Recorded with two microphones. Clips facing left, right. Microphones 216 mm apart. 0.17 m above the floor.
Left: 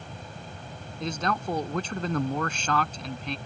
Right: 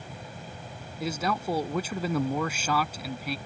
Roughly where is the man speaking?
Centre.